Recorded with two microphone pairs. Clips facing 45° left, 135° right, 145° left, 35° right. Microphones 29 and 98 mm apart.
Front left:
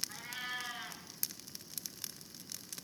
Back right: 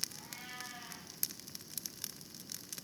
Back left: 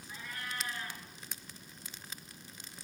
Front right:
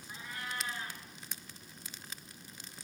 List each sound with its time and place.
0.1 s a cat meowing: 30° left, 5 m